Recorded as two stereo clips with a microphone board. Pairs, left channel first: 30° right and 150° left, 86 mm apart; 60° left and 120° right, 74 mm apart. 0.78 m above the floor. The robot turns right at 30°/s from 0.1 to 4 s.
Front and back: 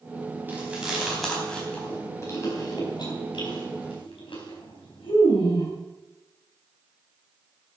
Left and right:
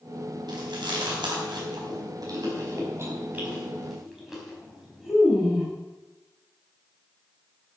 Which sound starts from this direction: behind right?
Chewing, at 0.5 s.